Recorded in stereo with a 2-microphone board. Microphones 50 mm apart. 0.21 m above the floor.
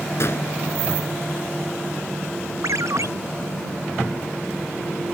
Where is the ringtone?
85° right.